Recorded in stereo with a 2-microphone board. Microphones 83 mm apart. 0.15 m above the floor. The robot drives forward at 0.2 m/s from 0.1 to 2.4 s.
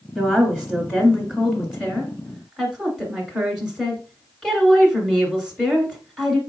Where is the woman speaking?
10° left (ahead or behind), 1.5 m; by 6.4 s 5° left (ahead or behind), 1.8 m.